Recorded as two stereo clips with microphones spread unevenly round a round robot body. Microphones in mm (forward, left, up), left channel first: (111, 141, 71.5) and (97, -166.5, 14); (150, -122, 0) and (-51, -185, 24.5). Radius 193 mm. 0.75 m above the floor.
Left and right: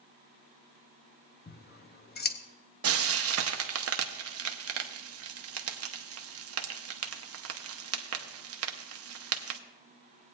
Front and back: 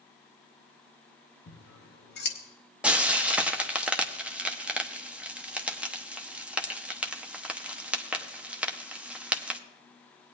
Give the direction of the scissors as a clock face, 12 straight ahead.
11 o'clock.